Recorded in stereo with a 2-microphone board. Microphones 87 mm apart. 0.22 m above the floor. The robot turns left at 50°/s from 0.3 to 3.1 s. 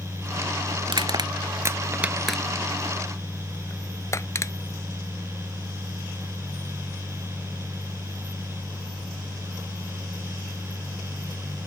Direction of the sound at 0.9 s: 75° right (ahead or behind).